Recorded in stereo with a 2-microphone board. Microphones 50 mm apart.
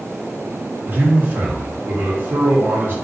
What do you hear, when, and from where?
0.8 s a man speaking: 45° right (ahead or behind), 0.8 m